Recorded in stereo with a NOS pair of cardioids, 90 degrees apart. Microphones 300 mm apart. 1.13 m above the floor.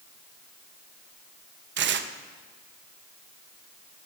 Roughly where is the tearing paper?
Ahead right.